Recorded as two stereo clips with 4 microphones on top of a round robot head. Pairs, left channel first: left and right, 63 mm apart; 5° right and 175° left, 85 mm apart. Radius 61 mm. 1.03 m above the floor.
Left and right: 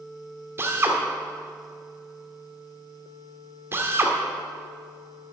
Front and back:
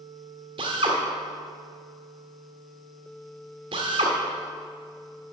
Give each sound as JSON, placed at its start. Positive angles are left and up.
{"t": 0.6, "sound": "a drill", "azimuth_deg": -140, "distance_m": 1.4}